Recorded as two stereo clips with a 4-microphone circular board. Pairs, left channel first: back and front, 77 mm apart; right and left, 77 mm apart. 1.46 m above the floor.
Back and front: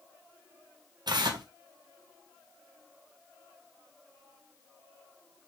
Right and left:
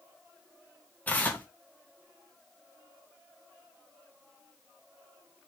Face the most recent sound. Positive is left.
turn(degrees=-20)